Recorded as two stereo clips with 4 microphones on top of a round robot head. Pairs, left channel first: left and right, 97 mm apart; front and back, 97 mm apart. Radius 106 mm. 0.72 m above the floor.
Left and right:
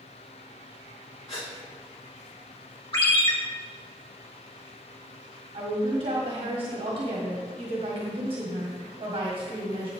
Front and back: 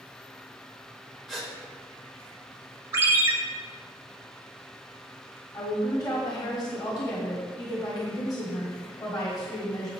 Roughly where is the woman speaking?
Ahead right.